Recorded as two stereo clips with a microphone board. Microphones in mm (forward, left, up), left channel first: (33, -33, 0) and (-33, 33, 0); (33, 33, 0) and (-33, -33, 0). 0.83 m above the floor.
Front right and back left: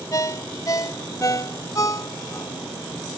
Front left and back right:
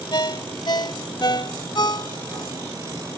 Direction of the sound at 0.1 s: 5° left.